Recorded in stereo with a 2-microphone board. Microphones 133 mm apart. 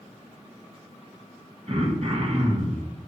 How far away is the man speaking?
I don't hear a man speaking.